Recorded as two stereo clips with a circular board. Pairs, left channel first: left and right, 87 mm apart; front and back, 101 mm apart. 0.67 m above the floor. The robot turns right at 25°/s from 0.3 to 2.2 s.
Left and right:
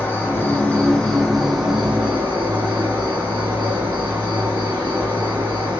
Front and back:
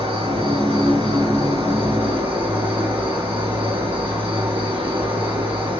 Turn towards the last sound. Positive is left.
turn(degrees=-160)